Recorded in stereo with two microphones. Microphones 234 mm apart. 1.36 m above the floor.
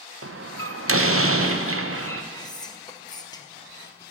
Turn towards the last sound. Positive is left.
turn(degrees=15)  # may be behind; listen again after turning